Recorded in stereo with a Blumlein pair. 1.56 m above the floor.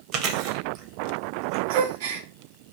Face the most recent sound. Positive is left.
turn(degrees=-50)